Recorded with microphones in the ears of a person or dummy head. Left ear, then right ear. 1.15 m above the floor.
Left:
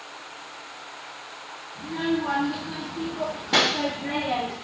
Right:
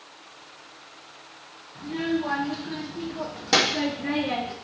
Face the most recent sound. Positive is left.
turn(degrees=-45)  # may be behind; listen again after turning